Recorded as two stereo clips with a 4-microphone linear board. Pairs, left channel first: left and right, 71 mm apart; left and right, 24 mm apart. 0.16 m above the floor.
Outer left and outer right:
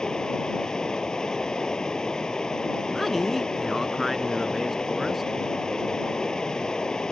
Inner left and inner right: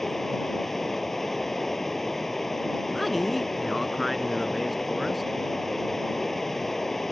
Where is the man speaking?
Centre (ahead or behind).